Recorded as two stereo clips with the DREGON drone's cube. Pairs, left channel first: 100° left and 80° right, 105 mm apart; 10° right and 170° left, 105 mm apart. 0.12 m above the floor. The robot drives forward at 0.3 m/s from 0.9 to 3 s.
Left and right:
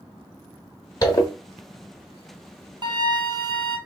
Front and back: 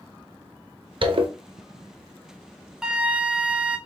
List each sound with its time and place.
1.0 s a zipper: 150° left, 0.8 m
2.8 s a flute: 105° right, 0.5 m; by 3.8 s 115° right, 0.5 m